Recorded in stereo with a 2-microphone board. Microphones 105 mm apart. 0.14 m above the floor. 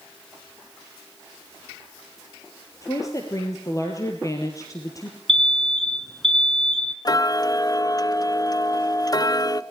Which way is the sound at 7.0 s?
40° left (ahead or behind).